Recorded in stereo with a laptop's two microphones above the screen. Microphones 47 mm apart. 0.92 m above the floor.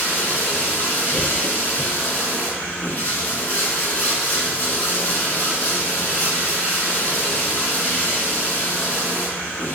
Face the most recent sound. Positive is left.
turn(degrees=45)  # may be behind; listen again after turning